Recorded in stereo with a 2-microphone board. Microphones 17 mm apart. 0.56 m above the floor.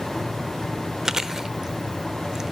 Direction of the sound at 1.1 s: 30° right (ahead or behind).